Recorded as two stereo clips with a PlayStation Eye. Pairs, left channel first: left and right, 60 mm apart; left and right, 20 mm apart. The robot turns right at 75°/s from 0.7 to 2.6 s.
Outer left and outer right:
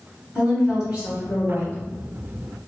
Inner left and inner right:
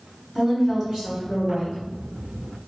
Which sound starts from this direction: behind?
A woman speaking, at 0.3 s.